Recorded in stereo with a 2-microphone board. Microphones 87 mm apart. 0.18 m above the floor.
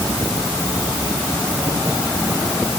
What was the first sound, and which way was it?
Only background noise.